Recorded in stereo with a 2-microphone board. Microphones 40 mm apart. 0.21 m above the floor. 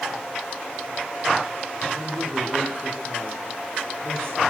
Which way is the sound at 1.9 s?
75° right (ahead or behind).